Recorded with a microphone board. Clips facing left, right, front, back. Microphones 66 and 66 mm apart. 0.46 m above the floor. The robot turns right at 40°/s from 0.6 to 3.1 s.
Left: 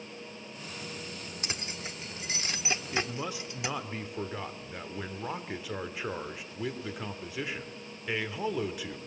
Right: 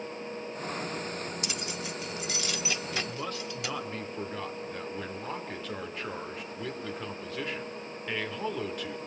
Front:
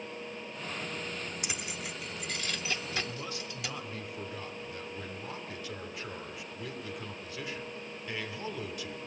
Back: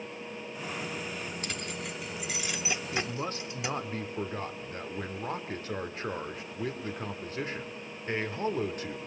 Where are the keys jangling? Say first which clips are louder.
Right 3 dB, back 2 dB; 65° left, 0.5 m; by 3.8 s 135° left, 0.5 m.